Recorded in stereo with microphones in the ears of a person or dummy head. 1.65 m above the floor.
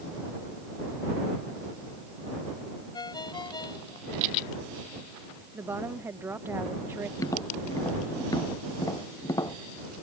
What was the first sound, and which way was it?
A ringtone, 25° left (ahead or behind).